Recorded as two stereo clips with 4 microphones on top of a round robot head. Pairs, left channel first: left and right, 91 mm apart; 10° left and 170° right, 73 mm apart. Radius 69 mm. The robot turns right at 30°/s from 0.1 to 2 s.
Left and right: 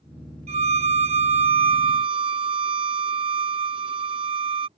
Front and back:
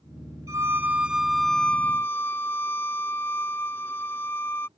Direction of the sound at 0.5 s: 110° right.